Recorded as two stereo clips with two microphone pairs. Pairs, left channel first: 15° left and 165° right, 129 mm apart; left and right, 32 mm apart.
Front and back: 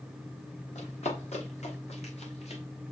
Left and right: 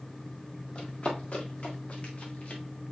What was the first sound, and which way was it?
Running footsteps, 40° left.